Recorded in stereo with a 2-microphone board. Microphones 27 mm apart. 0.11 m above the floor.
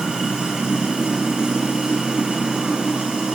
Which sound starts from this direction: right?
Running water, at 0.0 s.